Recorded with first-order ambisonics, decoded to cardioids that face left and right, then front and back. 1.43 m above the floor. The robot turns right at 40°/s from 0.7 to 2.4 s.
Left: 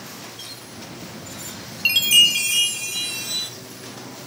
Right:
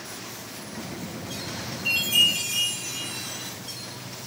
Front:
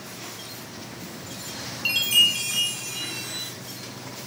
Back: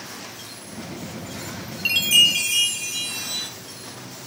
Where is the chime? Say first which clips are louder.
Left 6 dB, back 3 dB; 100° left, 1.4 m; by 3.5 s 125° left, 1.4 m.